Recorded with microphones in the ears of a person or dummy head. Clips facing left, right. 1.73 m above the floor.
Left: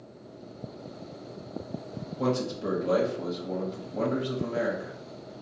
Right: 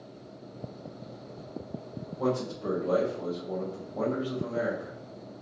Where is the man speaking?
40° left (ahead or behind), 0.8 m.